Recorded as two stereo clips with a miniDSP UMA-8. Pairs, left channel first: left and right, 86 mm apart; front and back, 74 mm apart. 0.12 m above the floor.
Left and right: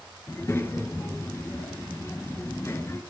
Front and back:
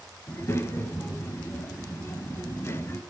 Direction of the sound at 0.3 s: 40° left.